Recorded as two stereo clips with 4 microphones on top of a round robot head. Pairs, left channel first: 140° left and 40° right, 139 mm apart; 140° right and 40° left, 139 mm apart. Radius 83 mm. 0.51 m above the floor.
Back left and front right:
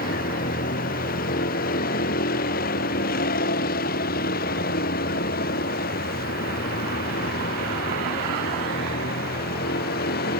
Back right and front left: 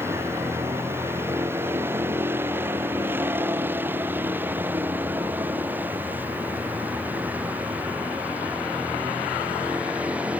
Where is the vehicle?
115° left; by 10.4 s 120° left.